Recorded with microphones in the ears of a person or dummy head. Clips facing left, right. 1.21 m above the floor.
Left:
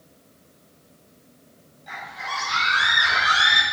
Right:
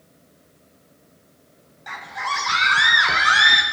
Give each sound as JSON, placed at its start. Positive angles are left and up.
{"t": 1.9, "sound": "a scream", "side_deg": -75, "distance_m": 1.9}